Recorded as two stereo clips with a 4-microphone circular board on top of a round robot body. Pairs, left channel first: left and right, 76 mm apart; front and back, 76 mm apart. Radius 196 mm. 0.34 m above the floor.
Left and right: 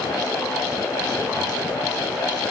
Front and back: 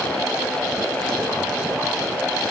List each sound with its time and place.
Only background noise.